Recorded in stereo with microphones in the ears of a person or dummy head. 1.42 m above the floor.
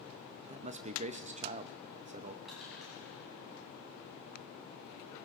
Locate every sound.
0.5 s a man speaking: 35° right (ahead or behind), 0.6 m
2.5 s crushing: centre (ahead or behind), 6.5 m